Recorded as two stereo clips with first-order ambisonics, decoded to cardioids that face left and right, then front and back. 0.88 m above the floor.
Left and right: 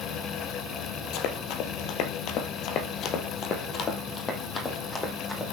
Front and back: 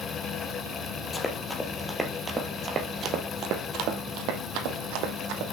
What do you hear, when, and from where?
1.1 s running footsteps: 70° left, 1.6 m; by 5.4 s 165° left, 2.5 m